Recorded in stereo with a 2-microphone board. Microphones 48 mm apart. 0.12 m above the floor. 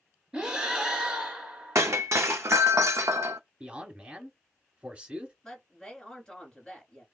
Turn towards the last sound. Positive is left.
turn(degrees=10)  # may be behind; listen again after turning